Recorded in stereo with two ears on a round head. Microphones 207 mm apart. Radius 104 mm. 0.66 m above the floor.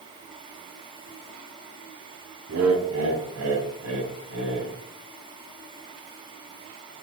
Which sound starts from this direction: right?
Laughter, at 2.5 s.